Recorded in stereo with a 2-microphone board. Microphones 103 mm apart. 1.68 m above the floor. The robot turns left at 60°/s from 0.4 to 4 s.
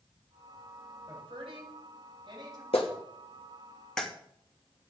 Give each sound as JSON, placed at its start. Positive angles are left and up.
{"t": 1.1, "sound": "a woman speaking", "side_deg": -45, "distance_m": 9.5}
{"t": 2.7, "sound": "a clap", "side_deg": 80, "distance_m": 3.0}